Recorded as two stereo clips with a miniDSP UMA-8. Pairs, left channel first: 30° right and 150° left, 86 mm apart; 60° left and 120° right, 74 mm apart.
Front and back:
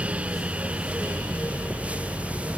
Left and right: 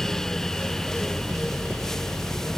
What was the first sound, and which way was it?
Only background noise.